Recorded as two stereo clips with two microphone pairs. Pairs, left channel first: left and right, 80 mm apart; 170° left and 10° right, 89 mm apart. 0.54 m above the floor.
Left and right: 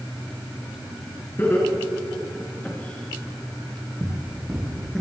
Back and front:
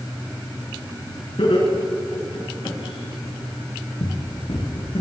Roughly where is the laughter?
Behind left.